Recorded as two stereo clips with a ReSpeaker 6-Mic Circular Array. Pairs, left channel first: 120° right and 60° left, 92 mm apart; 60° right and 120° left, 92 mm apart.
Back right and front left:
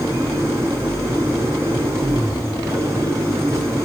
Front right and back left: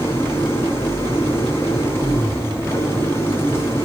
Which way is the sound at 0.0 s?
Straight ahead.